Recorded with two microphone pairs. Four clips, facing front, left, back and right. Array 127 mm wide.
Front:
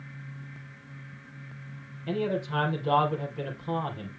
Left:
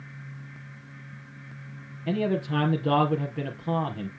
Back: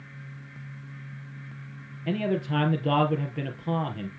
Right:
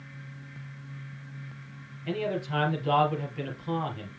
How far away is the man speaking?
About 3 m.